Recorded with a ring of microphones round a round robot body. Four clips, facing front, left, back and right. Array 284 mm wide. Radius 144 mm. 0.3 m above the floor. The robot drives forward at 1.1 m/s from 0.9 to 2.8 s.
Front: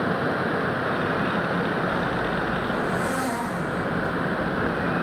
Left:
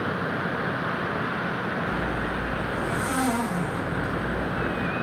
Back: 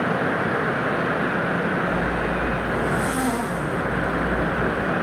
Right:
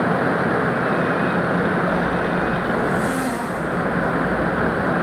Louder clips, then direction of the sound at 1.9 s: Right 8 dB, back 2 dB; 165° left.